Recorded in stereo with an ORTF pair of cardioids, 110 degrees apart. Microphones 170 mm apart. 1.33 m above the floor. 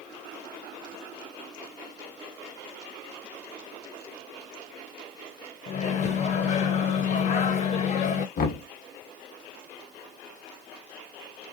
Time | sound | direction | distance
5.7 | a microwave | 45° left | 0.6 m
8.4 | knocking | 55° left | 1.0 m